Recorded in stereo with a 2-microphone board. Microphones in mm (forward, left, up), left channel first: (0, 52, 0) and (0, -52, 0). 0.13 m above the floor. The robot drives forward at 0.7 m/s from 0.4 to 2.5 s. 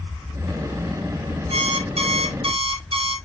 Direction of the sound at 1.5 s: 70° right (ahead or behind).